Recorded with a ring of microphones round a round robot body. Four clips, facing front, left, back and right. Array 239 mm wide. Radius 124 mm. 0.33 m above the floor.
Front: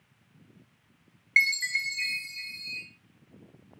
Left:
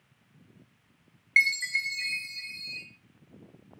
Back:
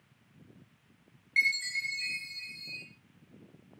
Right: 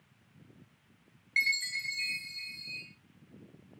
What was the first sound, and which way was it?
A chime, 40° left.